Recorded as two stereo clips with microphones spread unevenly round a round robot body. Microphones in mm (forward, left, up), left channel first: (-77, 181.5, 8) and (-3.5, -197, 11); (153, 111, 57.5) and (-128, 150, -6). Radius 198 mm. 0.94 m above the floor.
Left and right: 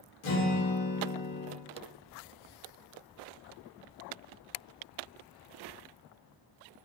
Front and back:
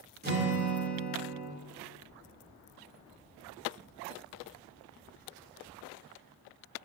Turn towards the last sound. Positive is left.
turn(degrees=115)